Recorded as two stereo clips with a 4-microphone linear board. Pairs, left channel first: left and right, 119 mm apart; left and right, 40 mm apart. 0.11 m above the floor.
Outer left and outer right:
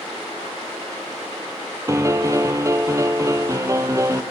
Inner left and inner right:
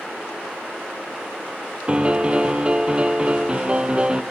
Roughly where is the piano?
Right.